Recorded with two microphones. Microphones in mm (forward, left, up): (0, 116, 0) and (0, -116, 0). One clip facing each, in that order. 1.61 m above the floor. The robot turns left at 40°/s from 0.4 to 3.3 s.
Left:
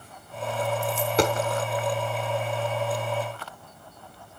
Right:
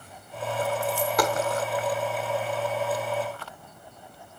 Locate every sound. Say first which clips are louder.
0.8 s a dropped coin: left 4 dB; 20° left (ahead or behind), 1.4 m; by 1.4 s 30° left (ahead or behind), 1.4 m